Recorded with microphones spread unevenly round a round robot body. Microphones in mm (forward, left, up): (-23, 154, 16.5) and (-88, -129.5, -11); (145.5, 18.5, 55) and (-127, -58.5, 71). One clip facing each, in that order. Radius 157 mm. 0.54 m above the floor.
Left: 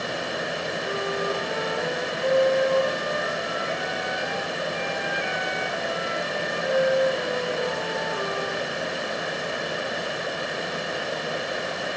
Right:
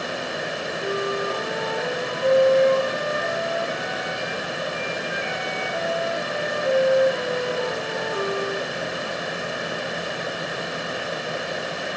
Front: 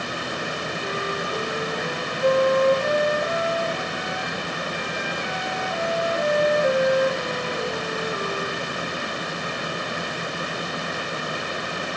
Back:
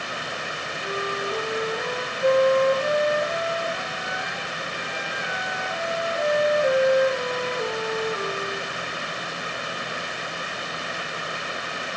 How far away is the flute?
About 7.5 m.